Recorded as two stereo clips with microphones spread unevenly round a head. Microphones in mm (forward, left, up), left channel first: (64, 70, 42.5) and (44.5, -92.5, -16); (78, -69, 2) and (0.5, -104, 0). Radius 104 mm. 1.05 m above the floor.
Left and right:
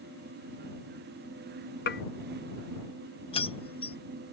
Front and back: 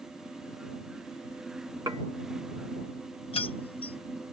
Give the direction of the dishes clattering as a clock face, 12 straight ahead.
8 o'clock.